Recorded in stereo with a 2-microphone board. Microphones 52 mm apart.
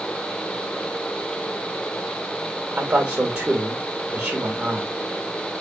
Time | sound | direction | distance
2.8 | a man speaking | 20° right (ahead or behind) | 2.5 m